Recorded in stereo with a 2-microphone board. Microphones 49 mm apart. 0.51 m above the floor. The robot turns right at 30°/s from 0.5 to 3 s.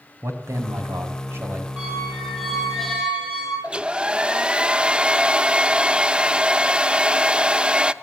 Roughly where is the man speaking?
Right.